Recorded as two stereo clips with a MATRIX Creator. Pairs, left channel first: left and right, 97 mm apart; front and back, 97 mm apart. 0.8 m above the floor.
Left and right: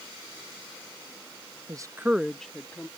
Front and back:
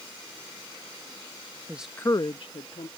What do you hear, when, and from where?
1.7 s a woman speaking: 120° right; by 2.9 s 15° left